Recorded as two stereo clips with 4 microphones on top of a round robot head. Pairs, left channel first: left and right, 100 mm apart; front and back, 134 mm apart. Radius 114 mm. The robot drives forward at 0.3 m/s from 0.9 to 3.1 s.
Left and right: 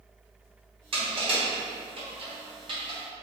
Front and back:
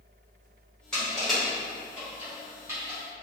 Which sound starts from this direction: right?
Crushing, at 0.9 s.